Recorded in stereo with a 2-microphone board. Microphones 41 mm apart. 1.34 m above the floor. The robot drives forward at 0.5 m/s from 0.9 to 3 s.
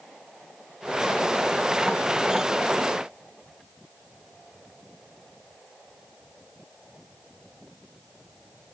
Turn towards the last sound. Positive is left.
No sound to turn to.